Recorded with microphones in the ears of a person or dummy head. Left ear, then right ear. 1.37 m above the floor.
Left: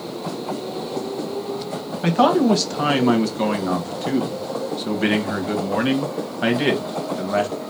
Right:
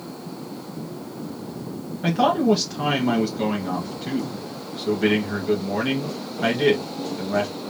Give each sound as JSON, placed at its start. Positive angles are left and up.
{"t": 2.0, "sound": "a man speaking", "side_deg": 35, "distance_m": 1.3}